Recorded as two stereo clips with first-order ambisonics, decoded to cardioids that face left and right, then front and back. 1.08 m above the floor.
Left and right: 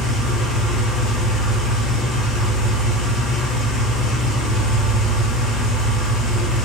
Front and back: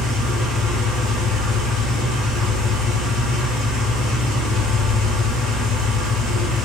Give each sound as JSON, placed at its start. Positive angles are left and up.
{"t": 0.0, "sound": "an engine running", "azimuth_deg": 40, "distance_m": 1.3}